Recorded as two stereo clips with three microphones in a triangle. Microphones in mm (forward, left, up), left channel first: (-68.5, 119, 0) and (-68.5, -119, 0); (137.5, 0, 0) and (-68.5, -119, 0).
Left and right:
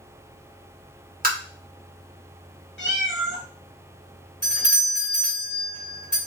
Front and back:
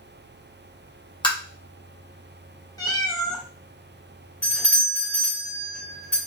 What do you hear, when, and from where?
1.2 s tapping: 40° right, 0.9 m
2.8 s a cat meowing: 100° left, 0.7 m
4.4 s a doorbell: 50° right, 1.6 m